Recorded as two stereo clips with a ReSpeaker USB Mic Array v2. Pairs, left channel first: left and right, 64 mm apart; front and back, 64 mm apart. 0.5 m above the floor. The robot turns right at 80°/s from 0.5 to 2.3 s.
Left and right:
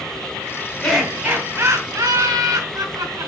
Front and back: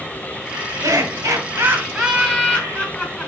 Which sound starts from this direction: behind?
Laughter, at 0.8 s.